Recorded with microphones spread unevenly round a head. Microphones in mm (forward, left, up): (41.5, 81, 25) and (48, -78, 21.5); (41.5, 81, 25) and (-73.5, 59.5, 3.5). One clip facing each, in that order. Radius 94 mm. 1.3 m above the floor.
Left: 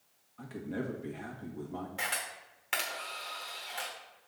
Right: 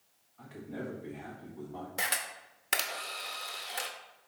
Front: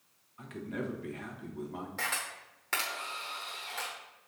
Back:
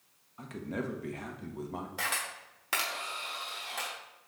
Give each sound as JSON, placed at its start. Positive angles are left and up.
{"t": 0.4, "sound": "a man speaking", "azimuth_deg": 140, "distance_m": 1.3}
{"t": 2.0, "sound": "a camera shutter", "azimuth_deg": -80, "distance_m": 0.8}